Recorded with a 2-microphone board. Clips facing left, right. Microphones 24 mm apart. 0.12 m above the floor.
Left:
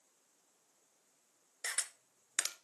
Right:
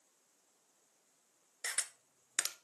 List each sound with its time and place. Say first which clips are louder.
1.6 s a camera shutter: even; 10° left (ahead or behind), 0.7 m